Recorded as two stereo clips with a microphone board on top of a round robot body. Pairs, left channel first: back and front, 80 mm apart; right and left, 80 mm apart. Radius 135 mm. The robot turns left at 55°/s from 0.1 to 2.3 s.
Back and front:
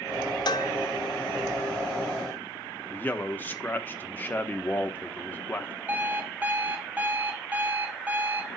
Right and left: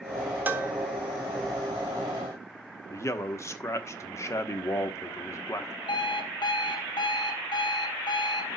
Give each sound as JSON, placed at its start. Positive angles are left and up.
{"t": 0.5, "sound": "dishes clattering", "azimuth_deg": 155, "distance_m": 1.1}
{"t": 2.9, "sound": "a man speaking", "azimuth_deg": -120, "distance_m": 1.5}
{"t": 5.9, "sound": "an alarm clock", "azimuth_deg": -70, "distance_m": 1.7}